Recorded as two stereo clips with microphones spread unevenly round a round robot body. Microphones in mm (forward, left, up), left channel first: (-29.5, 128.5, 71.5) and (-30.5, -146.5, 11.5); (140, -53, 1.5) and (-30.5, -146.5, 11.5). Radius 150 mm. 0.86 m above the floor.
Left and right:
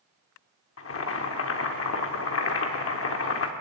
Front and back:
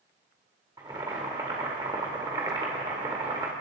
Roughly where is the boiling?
Behind left.